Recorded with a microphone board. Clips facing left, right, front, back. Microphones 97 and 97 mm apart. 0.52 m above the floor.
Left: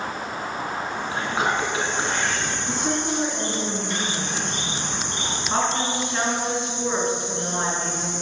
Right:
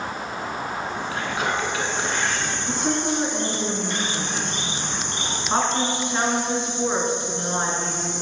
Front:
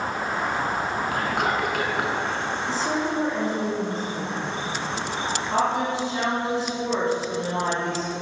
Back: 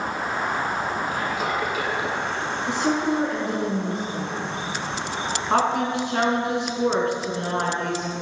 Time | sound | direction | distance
1.1 | whispering | 30° left | 5.5 m
2.7 | a woman speaking | 155° right | 5 m